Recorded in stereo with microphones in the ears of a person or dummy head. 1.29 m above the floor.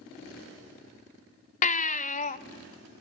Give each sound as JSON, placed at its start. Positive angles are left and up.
{"t": 1.6, "sound": "a baby crying", "side_deg": 45, "distance_m": 0.7}